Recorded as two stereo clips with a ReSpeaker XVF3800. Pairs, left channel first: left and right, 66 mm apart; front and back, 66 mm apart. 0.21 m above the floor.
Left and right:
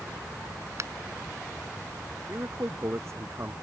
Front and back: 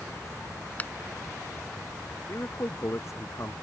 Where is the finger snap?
65° right.